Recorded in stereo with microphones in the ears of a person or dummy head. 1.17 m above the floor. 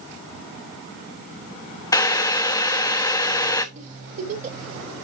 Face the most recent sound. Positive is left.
turn(degrees=-35)  # may be behind; listen again after turning